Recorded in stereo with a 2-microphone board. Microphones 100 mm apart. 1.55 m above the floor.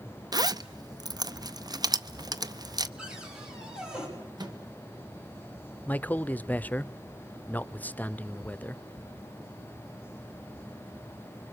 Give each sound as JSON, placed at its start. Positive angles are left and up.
{"t": 0.3, "sound": "a zipper", "side_deg": -40, "distance_m": 0.6}
{"t": 3.0, "sound": "a cupboard door", "side_deg": -5, "distance_m": 6.0}
{"t": 4.4, "sound": "a microwave", "side_deg": -45, "distance_m": 1.8}
{"t": 5.9, "sound": "a man speaking", "side_deg": 15, "distance_m": 0.6}